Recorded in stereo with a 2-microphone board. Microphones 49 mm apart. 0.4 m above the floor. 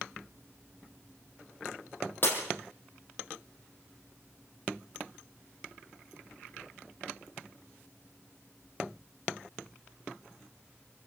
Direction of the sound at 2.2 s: 40° left (ahead or behind).